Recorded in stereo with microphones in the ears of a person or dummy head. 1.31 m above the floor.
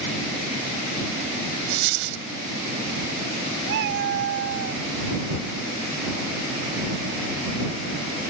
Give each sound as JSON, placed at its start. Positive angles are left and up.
{"t": 1.7, "sound": "a dropped coin", "side_deg": -65}
{"t": 3.7, "sound": "a cat meowing", "side_deg": -55}